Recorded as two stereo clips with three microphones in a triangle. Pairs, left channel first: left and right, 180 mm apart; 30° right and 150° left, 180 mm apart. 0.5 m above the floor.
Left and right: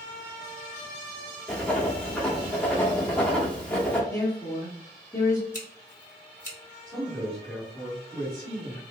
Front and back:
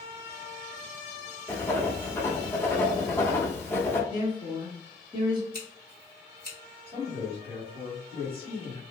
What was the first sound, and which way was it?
Writing, 15° left.